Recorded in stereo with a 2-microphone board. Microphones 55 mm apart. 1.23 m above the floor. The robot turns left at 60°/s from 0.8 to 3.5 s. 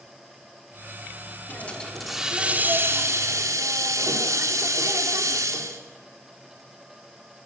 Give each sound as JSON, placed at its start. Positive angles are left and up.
{"t": 1.5, "sound": "a hiss", "azimuth_deg": 35, "distance_m": 3.0}